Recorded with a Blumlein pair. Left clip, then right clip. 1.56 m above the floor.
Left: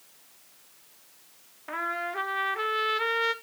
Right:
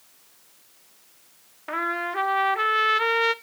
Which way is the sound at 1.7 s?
15° right.